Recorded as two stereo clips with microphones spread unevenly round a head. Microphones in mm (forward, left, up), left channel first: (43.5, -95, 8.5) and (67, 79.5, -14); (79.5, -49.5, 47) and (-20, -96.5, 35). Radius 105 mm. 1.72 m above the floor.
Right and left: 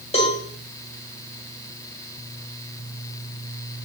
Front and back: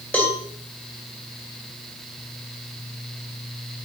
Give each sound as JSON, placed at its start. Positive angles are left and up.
{"t": 0.1, "sound": "a cowbell", "azimuth_deg": -50, "distance_m": 2.0}